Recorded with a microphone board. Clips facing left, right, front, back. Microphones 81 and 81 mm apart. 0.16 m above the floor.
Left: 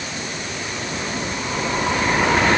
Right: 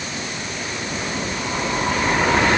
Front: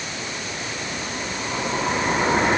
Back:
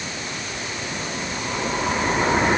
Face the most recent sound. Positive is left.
No sound to turn to.